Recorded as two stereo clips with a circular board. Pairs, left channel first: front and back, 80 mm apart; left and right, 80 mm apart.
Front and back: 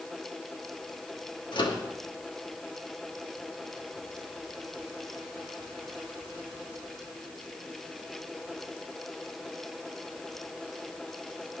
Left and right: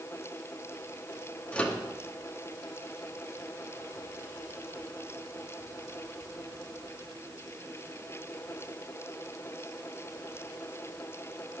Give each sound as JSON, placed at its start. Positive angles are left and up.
{"t": 1.5, "sound": "a microwave", "azimuth_deg": 15, "distance_m": 2.0}